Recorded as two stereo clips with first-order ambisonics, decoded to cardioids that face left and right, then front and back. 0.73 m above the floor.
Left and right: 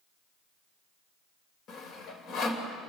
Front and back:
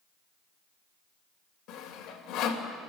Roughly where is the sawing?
Ahead left.